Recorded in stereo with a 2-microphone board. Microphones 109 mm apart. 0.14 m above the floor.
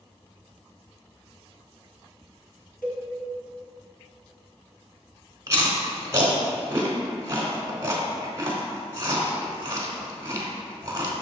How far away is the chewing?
About 0.9 m.